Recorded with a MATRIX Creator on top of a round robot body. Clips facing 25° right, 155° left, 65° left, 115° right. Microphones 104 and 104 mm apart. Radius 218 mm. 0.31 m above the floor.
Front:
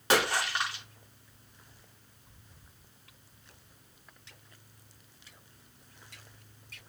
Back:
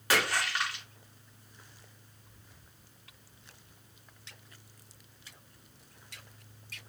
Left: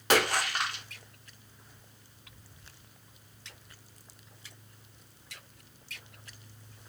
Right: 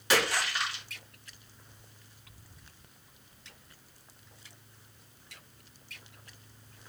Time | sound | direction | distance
0.1 | a splash | 40° left | 1.8 m